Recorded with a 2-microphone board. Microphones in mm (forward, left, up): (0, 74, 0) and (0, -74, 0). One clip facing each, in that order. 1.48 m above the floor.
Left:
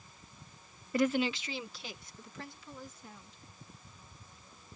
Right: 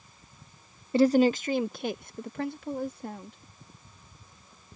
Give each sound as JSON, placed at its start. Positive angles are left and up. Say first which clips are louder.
{"t": 0.9, "sound": "a woman speaking", "louder": "right 9 dB", "side_deg": -25}